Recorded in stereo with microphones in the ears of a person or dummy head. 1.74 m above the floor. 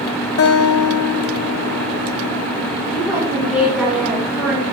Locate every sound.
0.4 s a guitar: 75° left (ahead or behind), 0.8 m
2.9 s a woman speaking: 10° right (ahead or behind), 1.8 m